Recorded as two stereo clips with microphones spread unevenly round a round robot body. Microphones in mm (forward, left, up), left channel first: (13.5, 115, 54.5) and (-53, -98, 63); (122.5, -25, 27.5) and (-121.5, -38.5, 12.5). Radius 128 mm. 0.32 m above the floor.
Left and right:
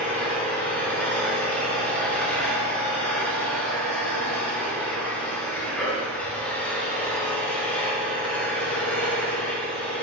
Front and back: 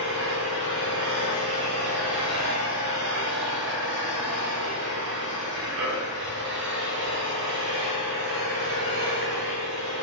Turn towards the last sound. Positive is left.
turn(degrees=155)